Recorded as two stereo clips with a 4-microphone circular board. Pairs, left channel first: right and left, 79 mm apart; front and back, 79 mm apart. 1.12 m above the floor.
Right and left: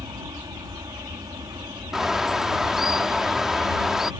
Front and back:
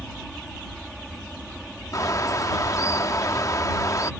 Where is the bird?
5° left.